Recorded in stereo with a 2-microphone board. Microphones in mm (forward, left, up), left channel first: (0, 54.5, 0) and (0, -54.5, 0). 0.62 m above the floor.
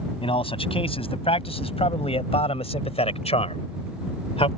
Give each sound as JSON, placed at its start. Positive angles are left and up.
{"t": 0.2, "sound": "a man speaking", "side_deg": 60}